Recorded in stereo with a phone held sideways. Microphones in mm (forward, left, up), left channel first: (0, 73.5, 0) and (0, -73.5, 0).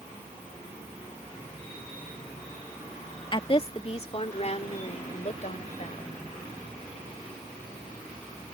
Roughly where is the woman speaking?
Left.